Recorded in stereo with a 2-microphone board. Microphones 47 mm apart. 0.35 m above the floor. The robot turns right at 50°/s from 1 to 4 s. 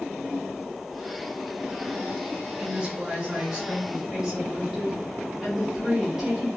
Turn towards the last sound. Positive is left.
turn(degrees=-10)  # may be behind; listen again after turning